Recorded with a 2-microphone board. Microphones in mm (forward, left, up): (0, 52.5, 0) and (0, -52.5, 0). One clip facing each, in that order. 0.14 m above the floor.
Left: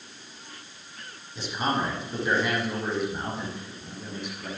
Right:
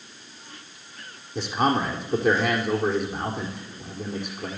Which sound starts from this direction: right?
A man speaking, at 1.4 s.